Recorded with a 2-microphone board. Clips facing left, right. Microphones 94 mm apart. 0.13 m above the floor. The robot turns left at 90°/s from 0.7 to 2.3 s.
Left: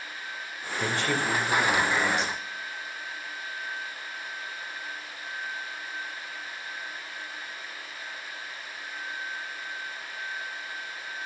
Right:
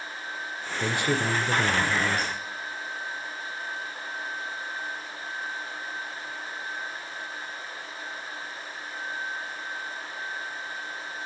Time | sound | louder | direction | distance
0.8 | a man speaking | right 1 dB | 10° left | 2.0 m